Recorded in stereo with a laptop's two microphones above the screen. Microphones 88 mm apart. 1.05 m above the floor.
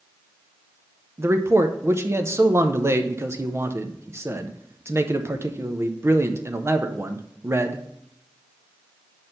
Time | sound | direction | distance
1.2 | a man speaking | 30° right (ahead or behind) | 0.6 m